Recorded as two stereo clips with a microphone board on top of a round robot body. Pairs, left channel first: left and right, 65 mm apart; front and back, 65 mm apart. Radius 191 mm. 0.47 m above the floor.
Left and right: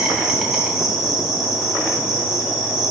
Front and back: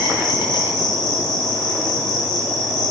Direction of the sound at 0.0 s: 10° right.